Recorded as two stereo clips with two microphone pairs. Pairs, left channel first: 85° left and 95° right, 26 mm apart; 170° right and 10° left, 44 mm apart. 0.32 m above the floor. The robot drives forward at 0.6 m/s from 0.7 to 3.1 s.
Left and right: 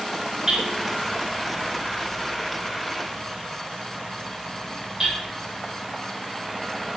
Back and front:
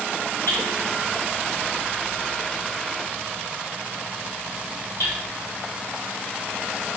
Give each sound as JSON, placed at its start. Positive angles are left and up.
{"t": 0.5, "sound": "hammering", "azimuth_deg": -155, "distance_m": 3.5}